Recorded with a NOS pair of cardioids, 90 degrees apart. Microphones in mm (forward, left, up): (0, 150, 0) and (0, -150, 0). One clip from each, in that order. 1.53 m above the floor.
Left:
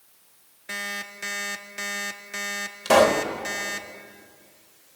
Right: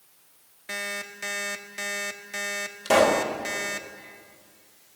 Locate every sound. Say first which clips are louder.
0.7 s an alarm clock: left 1 dB; straight ahead, 2.0 m
2.9 s a pop: left 2 dB; 20° left, 3.5 m